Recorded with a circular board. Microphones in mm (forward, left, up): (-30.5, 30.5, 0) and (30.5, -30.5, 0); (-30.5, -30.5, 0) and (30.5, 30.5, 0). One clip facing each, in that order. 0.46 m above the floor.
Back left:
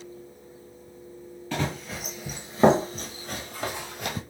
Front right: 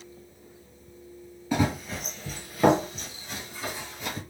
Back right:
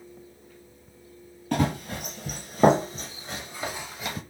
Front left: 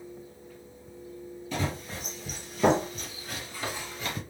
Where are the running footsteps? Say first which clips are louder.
Front right 4 dB, back right 7 dB; 120° right, 0.8 m; by 4.2 s 145° left, 1.2 m.